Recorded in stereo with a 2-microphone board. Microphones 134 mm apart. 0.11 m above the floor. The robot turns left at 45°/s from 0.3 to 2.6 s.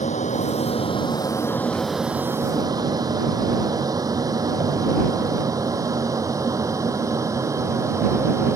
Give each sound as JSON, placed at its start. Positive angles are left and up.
{"t": 0.0, "sound": "an aircraft", "side_deg": 65}